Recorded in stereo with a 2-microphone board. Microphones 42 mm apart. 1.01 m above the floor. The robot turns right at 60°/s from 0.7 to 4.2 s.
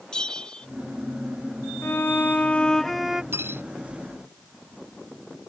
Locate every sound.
0.1 s a bell: 20° left (ahead or behind)
1.8 s a violin: 110° left; by 3.2 s 170° right
3.3 s cutlery clinking: 85° right; by 3.6 s 70° right (ahead or behind)